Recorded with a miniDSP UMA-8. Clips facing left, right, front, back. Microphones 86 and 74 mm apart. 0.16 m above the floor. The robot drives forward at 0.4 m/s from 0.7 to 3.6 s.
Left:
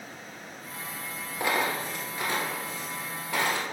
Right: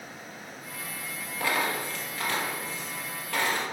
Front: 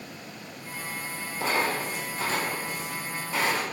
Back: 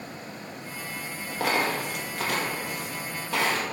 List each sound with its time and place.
1.4 s a dropped coin: 160° left, 1.5 m; by 3.6 s 170° left, 2.5 m